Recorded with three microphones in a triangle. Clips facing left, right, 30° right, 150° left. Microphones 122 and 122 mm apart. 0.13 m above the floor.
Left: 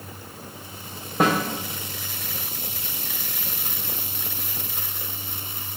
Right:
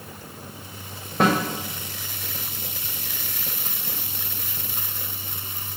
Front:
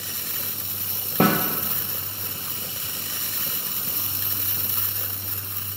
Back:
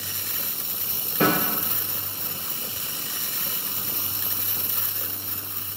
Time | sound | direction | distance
1.2 | a snare drum | 5° left | 2.5 m